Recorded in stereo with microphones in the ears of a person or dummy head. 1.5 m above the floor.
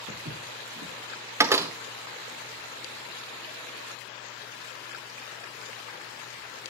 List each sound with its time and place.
0.1 s footsteps: 55° right (ahead or behind), 4.5 m
1.4 s a door slam: 15° right (ahead or behind), 0.7 m